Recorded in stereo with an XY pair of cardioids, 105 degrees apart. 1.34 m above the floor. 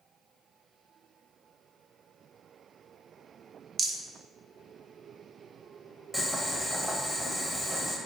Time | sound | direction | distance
3.8 | a rattle | 40° right | 0.6 m
6.1 | boiling | 10° left | 0.7 m